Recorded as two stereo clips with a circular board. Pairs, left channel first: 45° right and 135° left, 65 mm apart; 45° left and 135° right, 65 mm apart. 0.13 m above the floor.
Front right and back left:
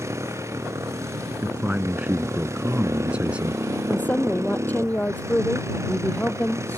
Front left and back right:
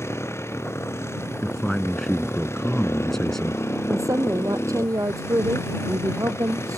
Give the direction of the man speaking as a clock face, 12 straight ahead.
8 o'clock.